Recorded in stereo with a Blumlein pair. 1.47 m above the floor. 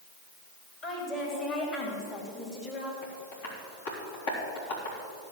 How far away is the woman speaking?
About 4.5 m.